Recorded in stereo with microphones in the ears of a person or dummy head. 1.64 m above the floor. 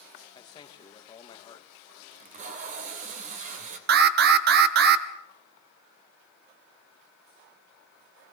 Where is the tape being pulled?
40° right (ahead or behind), 2.5 m.